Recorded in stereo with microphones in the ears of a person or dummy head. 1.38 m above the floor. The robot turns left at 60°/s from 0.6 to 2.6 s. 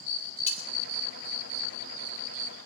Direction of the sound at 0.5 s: 40° left (ahead or behind).